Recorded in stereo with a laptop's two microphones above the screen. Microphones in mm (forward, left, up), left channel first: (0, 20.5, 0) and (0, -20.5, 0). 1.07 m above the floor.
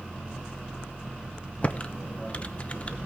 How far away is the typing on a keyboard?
About 0.8 m.